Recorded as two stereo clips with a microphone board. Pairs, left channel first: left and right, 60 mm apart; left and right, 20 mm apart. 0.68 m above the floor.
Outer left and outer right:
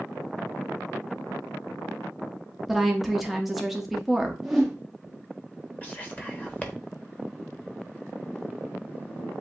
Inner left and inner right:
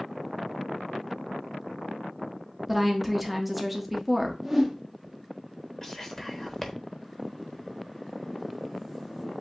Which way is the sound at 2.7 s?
5° right (ahead or behind).